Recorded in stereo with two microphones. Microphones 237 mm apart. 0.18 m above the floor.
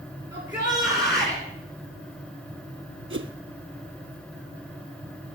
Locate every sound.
0.3 s a shout: 15° right (ahead or behind), 3.5 m
3.1 s a whoosh: 55° right (ahead or behind), 0.9 m